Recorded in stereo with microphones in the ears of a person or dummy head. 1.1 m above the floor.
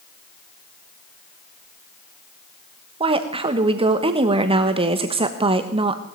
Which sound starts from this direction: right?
A woman speaking, at 3.0 s.